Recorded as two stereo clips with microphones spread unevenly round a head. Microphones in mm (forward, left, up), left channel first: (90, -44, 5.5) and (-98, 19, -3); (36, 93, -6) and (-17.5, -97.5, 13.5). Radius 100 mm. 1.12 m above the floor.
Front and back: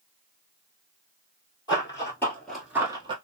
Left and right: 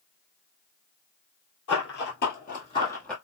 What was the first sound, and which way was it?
Running footsteps, 45° left.